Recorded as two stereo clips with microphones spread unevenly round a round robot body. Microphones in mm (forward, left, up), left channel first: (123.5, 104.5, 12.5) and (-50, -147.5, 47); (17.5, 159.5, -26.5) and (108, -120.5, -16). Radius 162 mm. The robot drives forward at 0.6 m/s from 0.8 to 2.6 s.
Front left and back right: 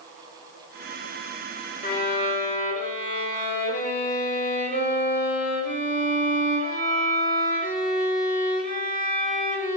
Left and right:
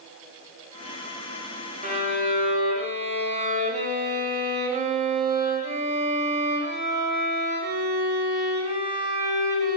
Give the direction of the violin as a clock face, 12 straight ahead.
12 o'clock.